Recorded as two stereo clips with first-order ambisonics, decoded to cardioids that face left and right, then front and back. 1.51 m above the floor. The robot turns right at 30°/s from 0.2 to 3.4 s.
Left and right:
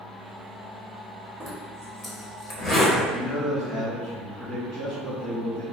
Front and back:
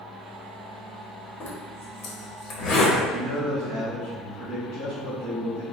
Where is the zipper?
5° left, 1.0 m; by 2.9 s 50° left, 1.0 m.